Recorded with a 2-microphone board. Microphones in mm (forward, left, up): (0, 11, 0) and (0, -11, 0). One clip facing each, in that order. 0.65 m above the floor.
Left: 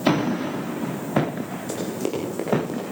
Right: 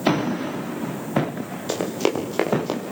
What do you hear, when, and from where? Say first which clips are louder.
1.7 s running footsteps: right 5 dB; 45° right (ahead or behind), 8 m; by 2.8 s 55° right (ahead or behind), 8.5 m